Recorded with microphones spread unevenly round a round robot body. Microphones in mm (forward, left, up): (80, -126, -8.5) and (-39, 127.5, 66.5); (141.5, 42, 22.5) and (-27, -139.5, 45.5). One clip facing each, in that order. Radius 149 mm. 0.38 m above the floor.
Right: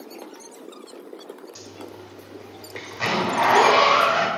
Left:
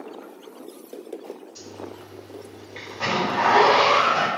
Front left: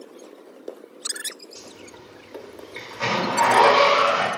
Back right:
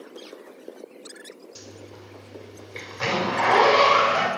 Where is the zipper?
100° right, 2 m.